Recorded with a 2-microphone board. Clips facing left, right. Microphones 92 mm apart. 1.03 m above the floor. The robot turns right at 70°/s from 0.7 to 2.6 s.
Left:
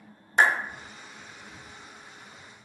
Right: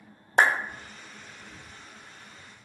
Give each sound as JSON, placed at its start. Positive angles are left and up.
{"t": 0.4, "sound": "a clap", "side_deg": -75, "distance_m": 1.5}